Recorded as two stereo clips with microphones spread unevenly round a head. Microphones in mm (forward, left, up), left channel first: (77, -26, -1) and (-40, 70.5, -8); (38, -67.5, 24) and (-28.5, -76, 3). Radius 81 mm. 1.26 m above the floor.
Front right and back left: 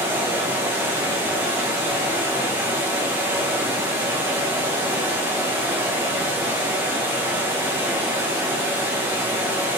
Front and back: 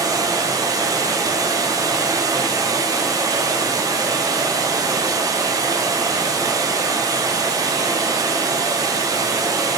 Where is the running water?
140° right, 0.8 m.